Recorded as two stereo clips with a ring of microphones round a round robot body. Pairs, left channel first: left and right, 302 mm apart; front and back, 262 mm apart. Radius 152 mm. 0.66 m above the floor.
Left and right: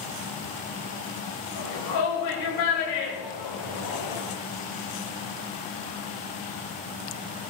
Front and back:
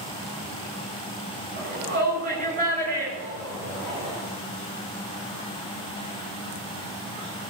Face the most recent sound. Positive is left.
turn(degrees=115)